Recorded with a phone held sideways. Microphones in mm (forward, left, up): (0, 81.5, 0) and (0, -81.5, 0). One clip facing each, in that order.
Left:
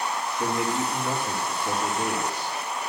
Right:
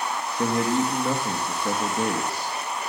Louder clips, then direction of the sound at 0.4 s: Right 5 dB; 70° right (ahead or behind).